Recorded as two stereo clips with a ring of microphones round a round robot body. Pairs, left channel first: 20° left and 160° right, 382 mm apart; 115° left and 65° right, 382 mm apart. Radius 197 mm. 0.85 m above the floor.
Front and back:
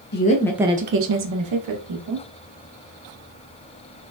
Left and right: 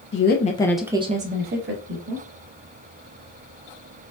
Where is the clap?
No clap in this recording.